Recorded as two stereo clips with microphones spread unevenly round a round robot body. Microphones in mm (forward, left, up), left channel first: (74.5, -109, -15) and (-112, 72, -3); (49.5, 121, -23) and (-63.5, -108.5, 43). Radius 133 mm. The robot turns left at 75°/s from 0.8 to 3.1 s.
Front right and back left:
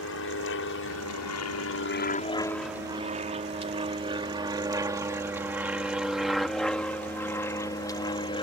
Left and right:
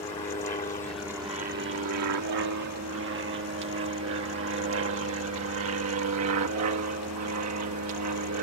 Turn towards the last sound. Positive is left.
turn(degrees=-110)